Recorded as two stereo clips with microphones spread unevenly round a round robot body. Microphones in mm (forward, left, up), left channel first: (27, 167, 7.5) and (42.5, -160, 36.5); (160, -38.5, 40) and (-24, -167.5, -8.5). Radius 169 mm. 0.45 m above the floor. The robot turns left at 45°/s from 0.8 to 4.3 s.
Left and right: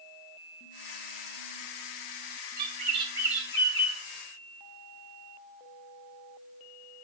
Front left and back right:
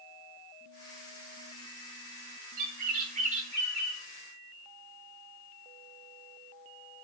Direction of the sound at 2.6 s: 145° right.